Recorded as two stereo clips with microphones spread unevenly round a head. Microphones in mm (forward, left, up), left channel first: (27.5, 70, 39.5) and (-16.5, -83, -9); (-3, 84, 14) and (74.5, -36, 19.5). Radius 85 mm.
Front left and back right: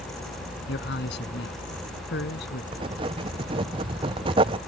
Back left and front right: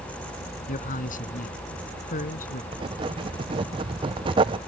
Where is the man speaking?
95° left.